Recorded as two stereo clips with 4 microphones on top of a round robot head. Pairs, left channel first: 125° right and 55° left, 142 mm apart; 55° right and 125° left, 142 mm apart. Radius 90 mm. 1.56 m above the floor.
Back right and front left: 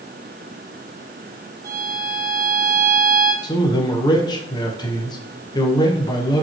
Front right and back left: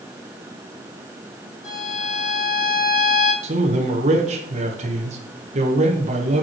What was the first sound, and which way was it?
A violin, 15° right.